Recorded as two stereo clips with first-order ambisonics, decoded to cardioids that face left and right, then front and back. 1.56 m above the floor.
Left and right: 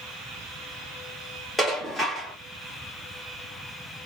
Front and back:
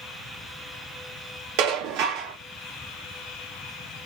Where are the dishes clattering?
175° left, 1.3 m.